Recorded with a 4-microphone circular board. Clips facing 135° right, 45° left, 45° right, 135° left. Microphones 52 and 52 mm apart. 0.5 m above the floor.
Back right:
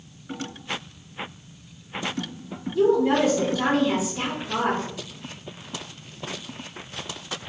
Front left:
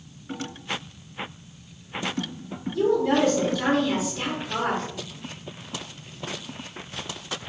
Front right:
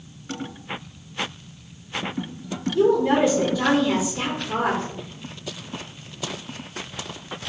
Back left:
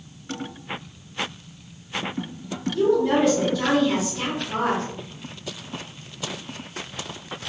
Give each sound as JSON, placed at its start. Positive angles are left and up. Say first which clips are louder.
{"t": 2.8, "sound": "a woman speaking", "louder": "back right 2 dB, front right 1 dB", "azimuth_deg": -90, "distance_m": 0.8}